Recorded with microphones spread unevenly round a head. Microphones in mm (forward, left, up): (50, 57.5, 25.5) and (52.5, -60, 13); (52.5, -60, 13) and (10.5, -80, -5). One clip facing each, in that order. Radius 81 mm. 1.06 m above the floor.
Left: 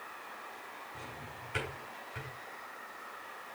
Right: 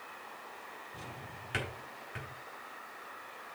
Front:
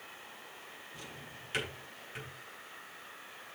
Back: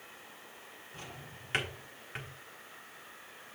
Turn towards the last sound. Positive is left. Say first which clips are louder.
# even, back 2 dB
turn(degrees=-105)